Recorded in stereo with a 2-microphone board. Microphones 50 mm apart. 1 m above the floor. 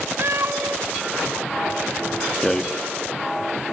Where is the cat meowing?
55° right (ahead or behind), 1.1 m.